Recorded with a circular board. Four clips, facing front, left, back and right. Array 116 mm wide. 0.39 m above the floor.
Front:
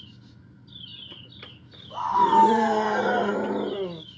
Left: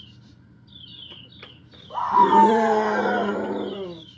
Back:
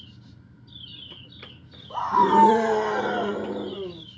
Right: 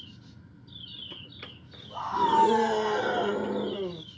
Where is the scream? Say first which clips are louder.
Left 8 dB, back 1 dB; 135° left, 2.5 m; by 4.0 s straight ahead, 1.8 m.